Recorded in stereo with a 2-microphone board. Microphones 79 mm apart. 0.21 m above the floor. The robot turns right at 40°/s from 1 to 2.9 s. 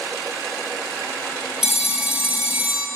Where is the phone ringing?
10° right (ahead or behind), 0.7 m; by 2.9 s 20° right (ahead or behind), 0.7 m.